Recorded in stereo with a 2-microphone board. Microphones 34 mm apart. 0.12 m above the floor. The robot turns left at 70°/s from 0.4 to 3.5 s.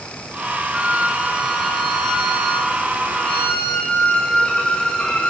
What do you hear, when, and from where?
0.7 s a violin: 135° right, 7 m; by 5.3 s 30° left, 7 m